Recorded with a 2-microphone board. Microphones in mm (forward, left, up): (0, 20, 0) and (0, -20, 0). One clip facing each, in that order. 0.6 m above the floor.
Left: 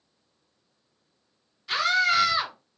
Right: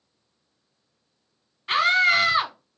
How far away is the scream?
About 0.9 m.